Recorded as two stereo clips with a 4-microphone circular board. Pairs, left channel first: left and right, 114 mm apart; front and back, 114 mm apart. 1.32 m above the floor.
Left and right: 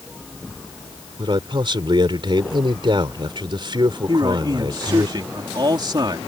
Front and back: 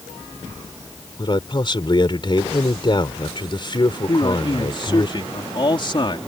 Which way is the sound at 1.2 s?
45° right.